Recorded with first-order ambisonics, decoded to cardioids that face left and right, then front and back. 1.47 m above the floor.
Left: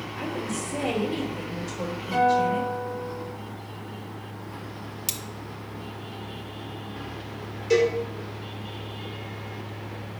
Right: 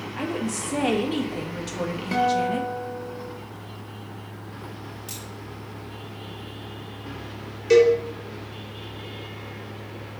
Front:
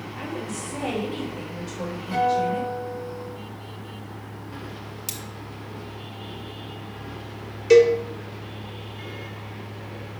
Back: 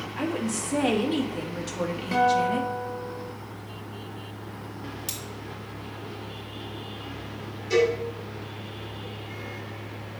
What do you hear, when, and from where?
0.2 s a woman speaking: 125° right, 2.0 m
2.1 s a guitar: 115° right, 3 m
5.1 s cutlery clinking: 75° left, 1.1 m
7.7 s a cowbell: 25° right, 2.5 m